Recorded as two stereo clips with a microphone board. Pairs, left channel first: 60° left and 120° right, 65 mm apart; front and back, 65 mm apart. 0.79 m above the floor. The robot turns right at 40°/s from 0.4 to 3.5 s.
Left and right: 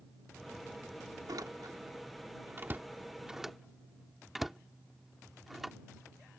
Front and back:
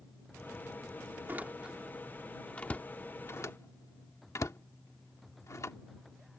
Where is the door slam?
125° right; by 5.8 s 35° right.